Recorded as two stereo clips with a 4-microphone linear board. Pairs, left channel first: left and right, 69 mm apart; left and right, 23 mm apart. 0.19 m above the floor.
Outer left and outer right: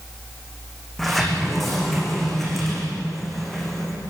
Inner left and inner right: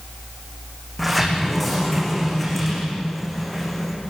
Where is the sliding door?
5° left (ahead or behind), 5.5 m.